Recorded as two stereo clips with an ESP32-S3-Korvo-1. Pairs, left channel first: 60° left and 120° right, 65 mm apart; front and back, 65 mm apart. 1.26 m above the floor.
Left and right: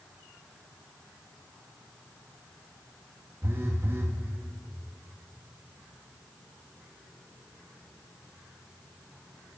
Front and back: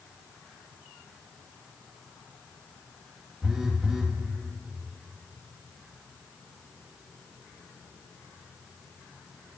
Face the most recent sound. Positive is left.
turn(degrees=-105)